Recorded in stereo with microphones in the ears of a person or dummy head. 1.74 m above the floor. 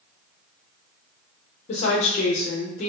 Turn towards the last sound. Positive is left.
turn(degrees=45)  # may be behind; listen again after turning